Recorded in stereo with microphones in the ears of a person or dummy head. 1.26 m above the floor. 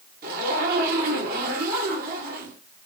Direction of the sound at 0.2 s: 55° right (ahead or behind).